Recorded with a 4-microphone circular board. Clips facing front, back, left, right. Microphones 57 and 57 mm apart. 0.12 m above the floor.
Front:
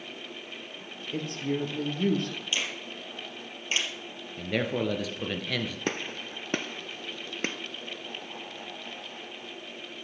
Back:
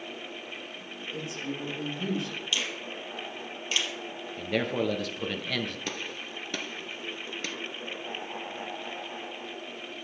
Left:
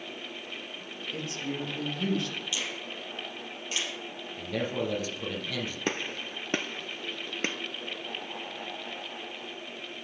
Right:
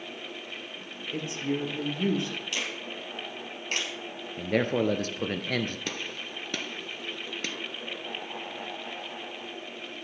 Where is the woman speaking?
30° right, 3 m.